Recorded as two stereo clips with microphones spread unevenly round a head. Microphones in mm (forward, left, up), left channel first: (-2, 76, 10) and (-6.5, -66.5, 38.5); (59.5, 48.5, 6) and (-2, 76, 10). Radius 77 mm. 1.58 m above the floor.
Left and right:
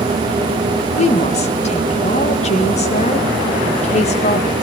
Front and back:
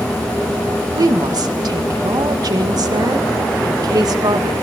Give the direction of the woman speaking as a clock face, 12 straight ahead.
8 o'clock.